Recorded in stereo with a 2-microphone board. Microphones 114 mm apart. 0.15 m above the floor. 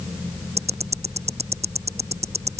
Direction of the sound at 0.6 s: 70° right (ahead or behind).